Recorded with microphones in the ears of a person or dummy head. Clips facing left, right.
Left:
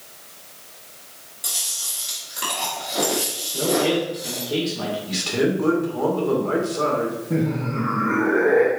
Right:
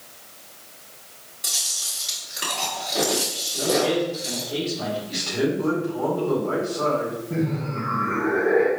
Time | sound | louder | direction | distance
1.4 | chewing | left 1 dB | 5° right (ahead or behind) | 1.6 m
3.5 | a man speaking | left 1 dB | 65° left (ahead or behind) | 1.6 m
5.1 | a man speaking | left 4 dB | 70° left (ahead or behind) | 1.8 m
7.3 | laughter | left 3 dB | 45° left (ahead or behind) | 0.6 m